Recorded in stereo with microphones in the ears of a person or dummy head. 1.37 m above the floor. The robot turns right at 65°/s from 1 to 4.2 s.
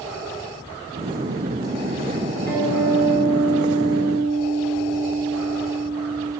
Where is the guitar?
170° left, 2.5 m; by 6.3 s 80° right, 2.5 m.